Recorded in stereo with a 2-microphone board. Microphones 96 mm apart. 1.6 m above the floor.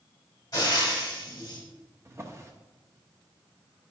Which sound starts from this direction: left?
Frying, at 0.5 s.